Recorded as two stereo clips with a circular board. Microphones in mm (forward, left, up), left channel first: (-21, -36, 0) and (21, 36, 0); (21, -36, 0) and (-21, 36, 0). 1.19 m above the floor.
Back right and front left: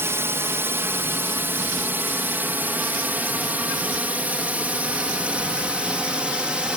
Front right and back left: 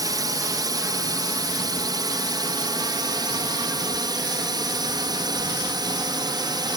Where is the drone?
110° left; by 6.8 s 135° left.